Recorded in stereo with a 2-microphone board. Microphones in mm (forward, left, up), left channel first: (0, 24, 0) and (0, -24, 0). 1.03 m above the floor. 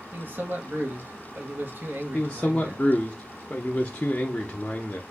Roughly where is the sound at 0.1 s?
Right.